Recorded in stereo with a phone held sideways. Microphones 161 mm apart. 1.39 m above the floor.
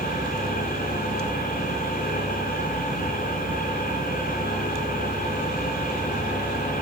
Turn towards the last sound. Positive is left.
turn(degrees=60)  # may be behind; listen again after turning